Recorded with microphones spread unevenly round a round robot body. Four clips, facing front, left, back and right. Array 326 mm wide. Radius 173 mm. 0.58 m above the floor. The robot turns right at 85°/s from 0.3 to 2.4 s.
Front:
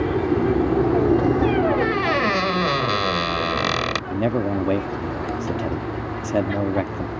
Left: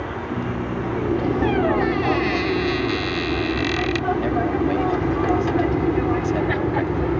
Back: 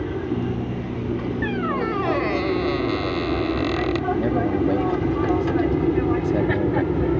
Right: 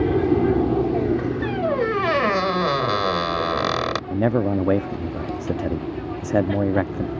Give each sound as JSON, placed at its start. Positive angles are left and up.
{"t": 0.0, "sound": "an aircraft", "azimuth_deg": -90}
{"t": 1.4, "sound": "a squeak", "azimuth_deg": -130}
{"t": 4.1, "sound": "a man speaking", "azimuth_deg": -75}